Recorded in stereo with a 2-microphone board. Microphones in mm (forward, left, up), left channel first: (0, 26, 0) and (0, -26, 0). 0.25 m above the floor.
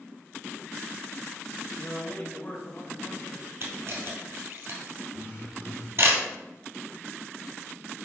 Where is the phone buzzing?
50° left (ahead or behind), 3 m.